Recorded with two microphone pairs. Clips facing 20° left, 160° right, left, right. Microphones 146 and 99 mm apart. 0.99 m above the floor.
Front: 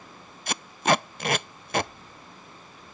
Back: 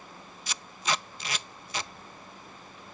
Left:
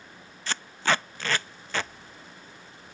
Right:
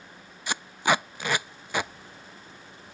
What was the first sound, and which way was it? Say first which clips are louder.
Tape being pulled: front 9 dB, right 2 dB; 15° right.